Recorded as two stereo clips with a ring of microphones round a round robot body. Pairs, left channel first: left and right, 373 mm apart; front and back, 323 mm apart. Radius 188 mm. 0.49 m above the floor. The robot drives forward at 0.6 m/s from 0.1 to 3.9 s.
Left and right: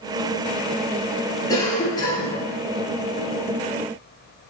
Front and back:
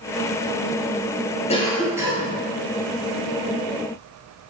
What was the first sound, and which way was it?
A cough, 25° left.